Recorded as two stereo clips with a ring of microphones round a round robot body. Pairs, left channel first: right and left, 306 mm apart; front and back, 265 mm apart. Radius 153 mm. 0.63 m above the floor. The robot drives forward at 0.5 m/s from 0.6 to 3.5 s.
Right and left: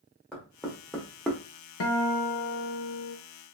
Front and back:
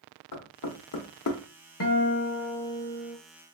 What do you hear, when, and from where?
0.3 s knocking: straight ahead, 1.3 m
1.8 s a guitar: 45° right, 0.9 m; by 3.2 s 100° right, 0.7 m